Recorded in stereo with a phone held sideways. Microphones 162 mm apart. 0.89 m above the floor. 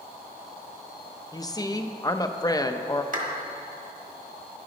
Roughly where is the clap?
Right.